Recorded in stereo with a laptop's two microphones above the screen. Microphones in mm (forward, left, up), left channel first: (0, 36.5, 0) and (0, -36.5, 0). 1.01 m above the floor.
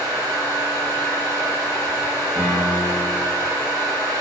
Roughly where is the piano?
Centre.